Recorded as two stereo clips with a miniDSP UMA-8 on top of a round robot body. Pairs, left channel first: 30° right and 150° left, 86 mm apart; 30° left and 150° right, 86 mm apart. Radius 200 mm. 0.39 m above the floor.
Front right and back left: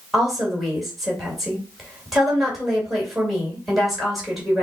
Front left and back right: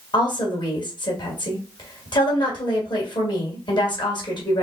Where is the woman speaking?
60° left, 3 m.